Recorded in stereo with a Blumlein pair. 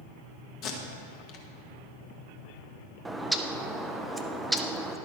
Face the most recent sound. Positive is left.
turn(degrees=-5)